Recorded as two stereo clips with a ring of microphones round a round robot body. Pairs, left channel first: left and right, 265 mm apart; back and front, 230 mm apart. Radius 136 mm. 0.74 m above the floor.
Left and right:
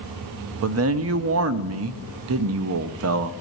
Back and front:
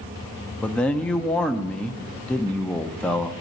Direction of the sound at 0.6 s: 95° right.